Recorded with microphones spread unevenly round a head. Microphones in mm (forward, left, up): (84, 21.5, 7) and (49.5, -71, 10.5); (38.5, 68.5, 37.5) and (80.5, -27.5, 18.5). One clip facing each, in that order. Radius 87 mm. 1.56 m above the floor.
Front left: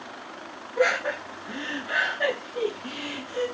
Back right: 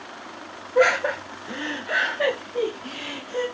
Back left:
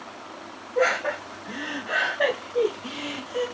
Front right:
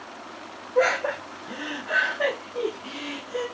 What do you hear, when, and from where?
0.8 s laughter: 120° right, 1.1 m; by 3.5 s 170° left, 1.5 m